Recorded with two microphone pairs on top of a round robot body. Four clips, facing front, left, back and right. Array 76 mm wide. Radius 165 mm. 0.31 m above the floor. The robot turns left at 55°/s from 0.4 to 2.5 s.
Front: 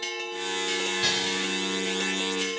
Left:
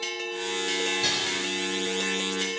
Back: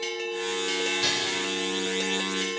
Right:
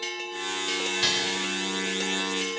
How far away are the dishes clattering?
About 2.5 m.